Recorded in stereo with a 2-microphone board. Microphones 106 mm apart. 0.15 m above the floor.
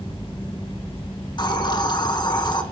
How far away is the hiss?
About 1.9 m.